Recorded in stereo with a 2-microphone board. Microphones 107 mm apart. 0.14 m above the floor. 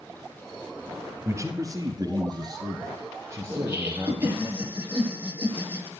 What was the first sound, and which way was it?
A man speaking, 25° right (ahead or behind).